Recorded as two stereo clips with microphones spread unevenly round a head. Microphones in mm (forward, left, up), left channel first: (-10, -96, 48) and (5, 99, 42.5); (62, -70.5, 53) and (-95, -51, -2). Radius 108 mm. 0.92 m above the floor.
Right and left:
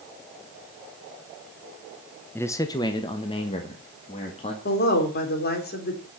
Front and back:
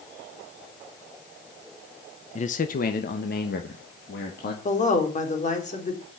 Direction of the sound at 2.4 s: 30° right.